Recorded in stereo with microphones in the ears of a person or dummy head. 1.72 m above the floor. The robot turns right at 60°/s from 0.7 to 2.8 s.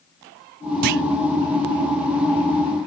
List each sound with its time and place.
0.8 s a clunk: 40° right (ahead or behind); by 1.0 s 50° right (ahead or behind)